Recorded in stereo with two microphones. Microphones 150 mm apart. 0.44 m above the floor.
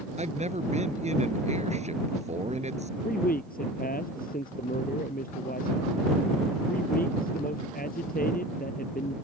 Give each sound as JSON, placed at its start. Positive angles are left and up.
{"t": 0.2, "sound": "a man speaking", "side_deg": -50}
{"t": 3.0, "sound": "a man speaking", "side_deg": 75}